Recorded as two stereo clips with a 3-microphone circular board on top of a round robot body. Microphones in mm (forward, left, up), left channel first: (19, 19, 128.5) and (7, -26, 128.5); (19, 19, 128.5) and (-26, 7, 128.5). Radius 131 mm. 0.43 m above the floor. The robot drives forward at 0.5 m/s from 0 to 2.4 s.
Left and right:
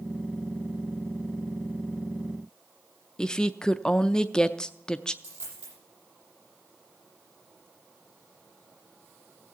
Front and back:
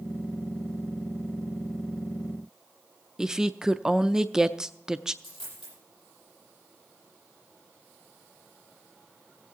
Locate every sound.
3.2 s a woman speaking: 130° left, 0.8 m
5.2 s a dropped coin: 85° right, 9.5 m